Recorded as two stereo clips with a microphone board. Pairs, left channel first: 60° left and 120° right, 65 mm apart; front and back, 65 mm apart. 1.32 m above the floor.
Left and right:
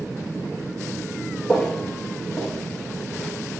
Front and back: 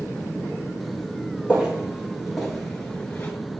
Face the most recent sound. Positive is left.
turn(degrees=0)